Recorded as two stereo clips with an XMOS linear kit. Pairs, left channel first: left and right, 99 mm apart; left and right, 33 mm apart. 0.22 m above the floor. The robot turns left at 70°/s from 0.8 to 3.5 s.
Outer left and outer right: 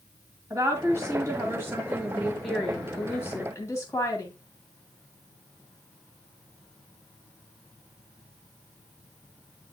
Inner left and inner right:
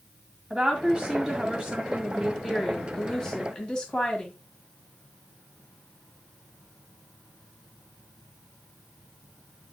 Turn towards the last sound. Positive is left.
turn(degrees=110)